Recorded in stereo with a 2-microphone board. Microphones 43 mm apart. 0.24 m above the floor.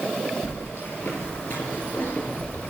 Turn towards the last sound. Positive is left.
turn(degrees=50)  # may be behind; listen again after turning